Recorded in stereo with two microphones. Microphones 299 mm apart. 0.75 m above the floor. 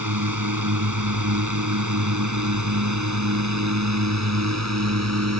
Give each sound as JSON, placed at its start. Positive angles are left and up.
{"t": 0.0, "sound": "a drone", "side_deg": -75}